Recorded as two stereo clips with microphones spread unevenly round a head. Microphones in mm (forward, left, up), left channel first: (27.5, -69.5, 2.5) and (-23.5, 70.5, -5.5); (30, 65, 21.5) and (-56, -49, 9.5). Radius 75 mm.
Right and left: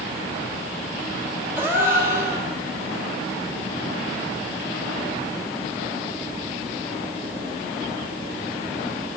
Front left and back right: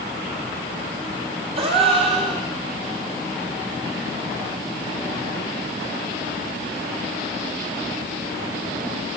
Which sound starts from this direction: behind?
A gasp, at 1.6 s.